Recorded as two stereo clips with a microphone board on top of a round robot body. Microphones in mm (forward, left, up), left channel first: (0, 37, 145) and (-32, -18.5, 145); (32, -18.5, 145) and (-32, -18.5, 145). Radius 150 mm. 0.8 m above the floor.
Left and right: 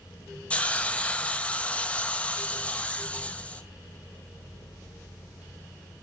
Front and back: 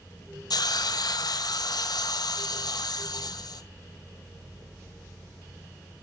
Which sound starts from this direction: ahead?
A hiss, at 0.5 s.